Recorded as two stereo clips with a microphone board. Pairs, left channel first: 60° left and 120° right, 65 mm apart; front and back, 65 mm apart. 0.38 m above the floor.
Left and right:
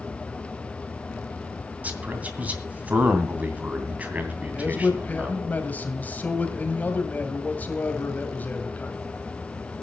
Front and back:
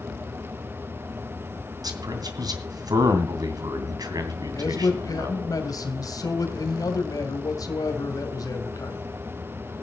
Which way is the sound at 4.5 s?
5° right.